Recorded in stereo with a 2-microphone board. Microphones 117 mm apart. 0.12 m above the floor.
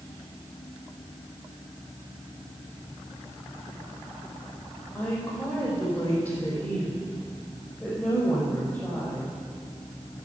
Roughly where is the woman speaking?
Centre.